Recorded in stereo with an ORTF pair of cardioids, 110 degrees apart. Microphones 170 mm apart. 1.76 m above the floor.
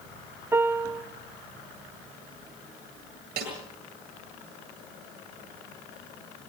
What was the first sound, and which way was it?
A piano, 15° right.